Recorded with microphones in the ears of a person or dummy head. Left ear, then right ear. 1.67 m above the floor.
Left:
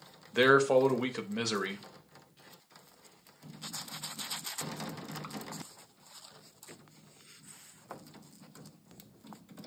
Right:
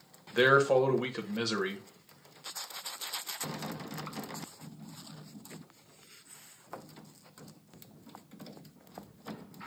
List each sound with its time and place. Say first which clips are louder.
0.3 s a man speaking: even; 10° left (ahead or behind), 0.6 m